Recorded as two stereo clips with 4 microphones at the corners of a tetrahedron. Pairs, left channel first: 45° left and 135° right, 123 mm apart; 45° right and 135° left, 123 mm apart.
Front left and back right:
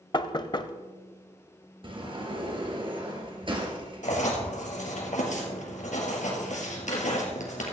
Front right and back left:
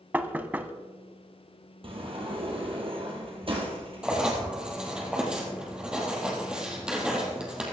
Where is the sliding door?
Straight behind, 3 m.